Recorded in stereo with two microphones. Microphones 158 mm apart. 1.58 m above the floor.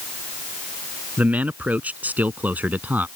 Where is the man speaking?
10° right (ahead or behind).